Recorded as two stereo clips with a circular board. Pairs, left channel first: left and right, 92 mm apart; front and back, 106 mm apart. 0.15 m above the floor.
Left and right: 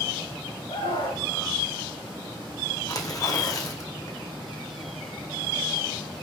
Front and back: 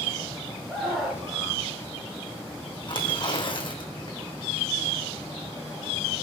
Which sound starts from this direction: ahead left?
Tearing paper, at 2.9 s.